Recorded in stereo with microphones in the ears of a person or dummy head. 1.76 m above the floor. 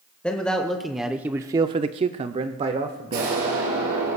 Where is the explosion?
80° right, 4 m.